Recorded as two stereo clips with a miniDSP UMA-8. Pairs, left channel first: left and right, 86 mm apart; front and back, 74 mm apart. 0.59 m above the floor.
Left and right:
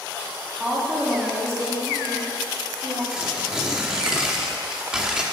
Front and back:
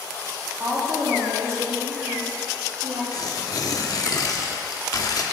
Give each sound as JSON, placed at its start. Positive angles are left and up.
{"t": 0.6, "sound": "a woman speaking", "azimuth_deg": -155, "distance_m": 1.2}
{"t": 3.1, "sound": "tearing paper", "azimuth_deg": -10, "distance_m": 0.7}